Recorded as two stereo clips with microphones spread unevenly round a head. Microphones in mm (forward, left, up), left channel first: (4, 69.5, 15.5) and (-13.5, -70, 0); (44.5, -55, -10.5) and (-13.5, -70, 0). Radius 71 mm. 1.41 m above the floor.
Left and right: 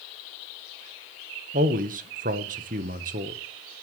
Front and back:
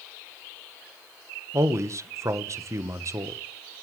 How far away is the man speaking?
About 1.3 m.